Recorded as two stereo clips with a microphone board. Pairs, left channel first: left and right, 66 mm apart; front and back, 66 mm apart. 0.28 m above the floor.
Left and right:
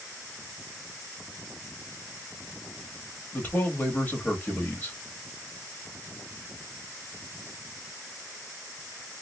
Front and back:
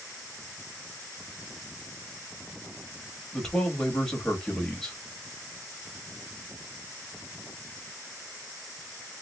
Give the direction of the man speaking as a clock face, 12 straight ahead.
10 o'clock.